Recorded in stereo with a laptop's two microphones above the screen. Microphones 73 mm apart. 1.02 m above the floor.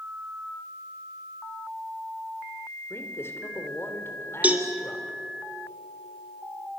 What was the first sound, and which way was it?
A man speaking, 35° left (ahead or behind).